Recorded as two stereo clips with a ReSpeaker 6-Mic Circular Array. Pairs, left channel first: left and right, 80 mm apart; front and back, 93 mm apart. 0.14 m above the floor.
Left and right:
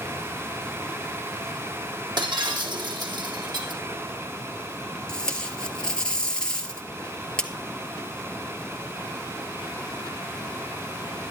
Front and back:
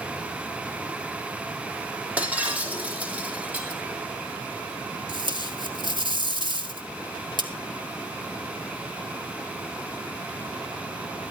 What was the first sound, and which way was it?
Breaking glass, 105° right.